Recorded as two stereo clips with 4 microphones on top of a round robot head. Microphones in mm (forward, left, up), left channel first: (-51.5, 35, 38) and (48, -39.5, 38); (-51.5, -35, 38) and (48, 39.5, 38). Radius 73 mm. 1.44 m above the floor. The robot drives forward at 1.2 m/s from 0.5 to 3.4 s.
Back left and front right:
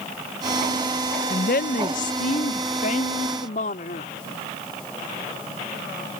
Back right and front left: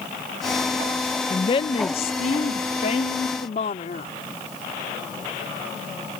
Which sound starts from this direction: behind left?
A woman speaking, at 1.3 s.